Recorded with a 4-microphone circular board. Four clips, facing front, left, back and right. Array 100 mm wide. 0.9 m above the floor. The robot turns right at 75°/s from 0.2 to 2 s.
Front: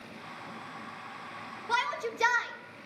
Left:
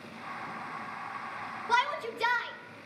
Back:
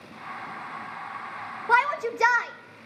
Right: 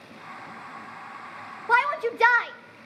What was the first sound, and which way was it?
A shout, 140° right.